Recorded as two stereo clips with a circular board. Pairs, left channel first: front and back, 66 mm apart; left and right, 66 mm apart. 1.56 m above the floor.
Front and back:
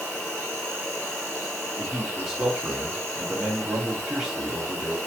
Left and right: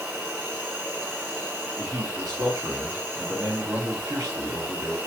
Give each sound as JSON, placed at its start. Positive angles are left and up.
{"t": 0.0, "sound": "an insect", "azimuth_deg": -50, "distance_m": 1.1}
{"t": 1.8, "sound": "a man speaking", "azimuth_deg": -100, "distance_m": 1.6}